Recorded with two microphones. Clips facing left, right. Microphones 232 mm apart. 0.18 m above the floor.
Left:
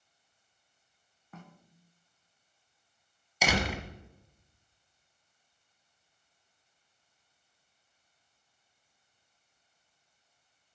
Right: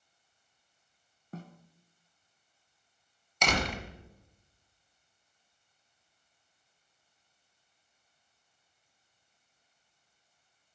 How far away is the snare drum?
About 0.7 m.